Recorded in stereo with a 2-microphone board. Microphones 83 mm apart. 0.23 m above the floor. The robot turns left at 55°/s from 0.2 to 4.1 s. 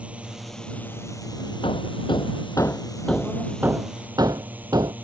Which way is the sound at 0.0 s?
165° right.